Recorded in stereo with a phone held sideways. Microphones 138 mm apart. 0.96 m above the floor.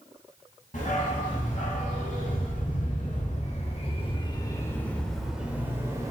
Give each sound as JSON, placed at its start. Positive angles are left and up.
{"t": 0.7, "sound": "a dog barking", "side_deg": 75, "distance_m": 2.5}